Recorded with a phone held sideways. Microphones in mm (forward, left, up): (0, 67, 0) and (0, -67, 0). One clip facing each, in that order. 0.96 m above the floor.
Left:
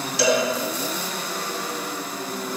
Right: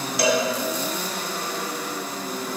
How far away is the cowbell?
About 3.5 m.